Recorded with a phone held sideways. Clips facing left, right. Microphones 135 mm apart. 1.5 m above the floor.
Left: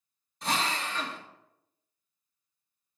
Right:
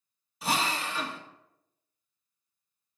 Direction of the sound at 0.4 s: 5° right (ahead or behind).